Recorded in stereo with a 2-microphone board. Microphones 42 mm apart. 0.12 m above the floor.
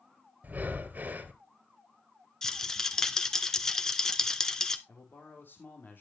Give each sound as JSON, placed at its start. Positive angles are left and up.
{"t": 0.4, "sound": "breathing", "side_deg": -40, "distance_m": 1.7}
{"t": 2.4, "sound": "a rattle", "side_deg": 15, "distance_m": 0.8}
{"t": 4.9, "sound": "a man speaking", "side_deg": 55, "distance_m": 4.5}